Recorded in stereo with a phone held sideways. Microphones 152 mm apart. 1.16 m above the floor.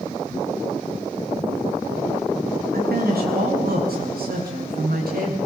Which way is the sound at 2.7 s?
90° right.